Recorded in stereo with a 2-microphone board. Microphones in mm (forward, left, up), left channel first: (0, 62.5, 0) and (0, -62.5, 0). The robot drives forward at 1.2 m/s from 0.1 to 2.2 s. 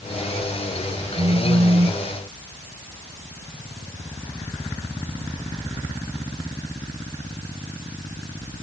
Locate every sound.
1.2 s a phone buzzing: 85° right, 1.5 m; by 2.0 s 55° right (ahead or behind), 1.8 m